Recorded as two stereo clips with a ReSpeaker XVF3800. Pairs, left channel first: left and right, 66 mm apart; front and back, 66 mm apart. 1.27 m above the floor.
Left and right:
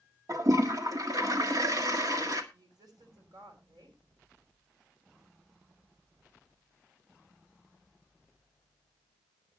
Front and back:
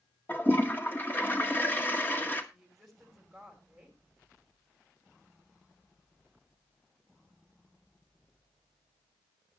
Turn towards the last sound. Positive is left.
turn(degrees=-90)